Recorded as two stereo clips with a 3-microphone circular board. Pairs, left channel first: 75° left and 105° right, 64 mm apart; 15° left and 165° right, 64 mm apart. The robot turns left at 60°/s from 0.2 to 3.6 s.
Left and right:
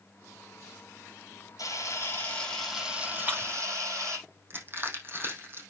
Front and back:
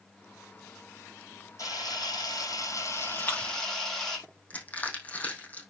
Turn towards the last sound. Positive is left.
turn(degrees=-50)